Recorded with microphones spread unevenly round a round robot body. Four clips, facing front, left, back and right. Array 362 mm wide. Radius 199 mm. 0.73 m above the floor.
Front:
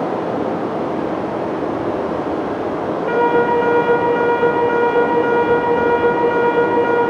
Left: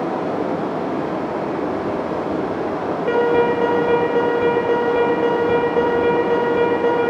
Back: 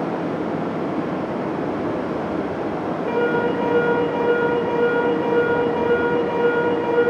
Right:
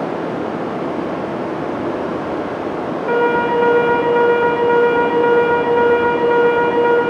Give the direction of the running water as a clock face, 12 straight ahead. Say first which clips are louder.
Even, front 4 dB; 6 o'clock.